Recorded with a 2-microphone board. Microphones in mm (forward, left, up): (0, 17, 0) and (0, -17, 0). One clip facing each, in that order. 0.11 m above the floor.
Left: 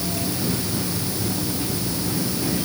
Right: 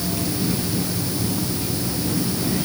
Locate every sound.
Only background noise.